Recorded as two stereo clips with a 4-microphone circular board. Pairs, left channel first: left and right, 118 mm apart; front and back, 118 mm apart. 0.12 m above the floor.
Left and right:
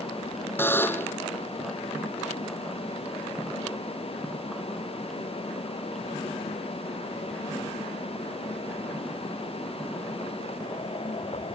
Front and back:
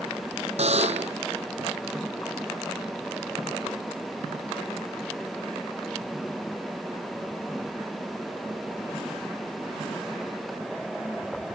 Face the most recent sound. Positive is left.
turn(degrees=160)